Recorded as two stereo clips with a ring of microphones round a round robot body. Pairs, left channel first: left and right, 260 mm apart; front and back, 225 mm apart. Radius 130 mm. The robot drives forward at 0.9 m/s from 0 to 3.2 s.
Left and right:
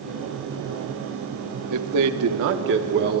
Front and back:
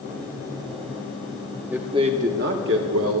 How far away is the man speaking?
About 1.1 m.